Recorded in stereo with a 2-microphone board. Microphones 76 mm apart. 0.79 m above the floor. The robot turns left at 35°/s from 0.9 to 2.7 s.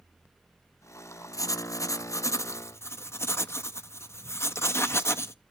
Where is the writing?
100° left, 0.6 m; by 5.3 s 50° left, 0.6 m.